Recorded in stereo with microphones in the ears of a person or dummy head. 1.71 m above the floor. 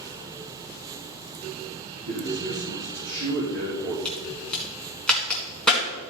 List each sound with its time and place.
2.1 s a man speaking: 75° right (ahead or behind), 3 m
4.0 s a crack: 5° left (ahead or behind), 3.5 m